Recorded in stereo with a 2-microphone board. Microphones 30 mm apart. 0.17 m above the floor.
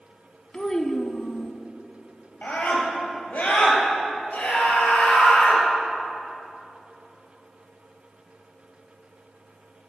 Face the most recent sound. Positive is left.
turn(degrees=65)  # may be behind; listen again after turning